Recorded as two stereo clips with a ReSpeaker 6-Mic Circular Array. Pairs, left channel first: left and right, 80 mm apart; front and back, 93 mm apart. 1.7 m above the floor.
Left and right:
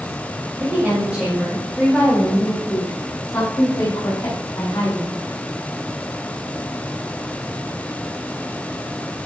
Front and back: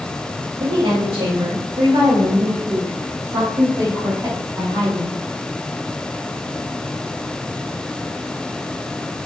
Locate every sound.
0.6 s a woman speaking: 160° right, 3 m; by 5.1 s 130° left, 5.5 m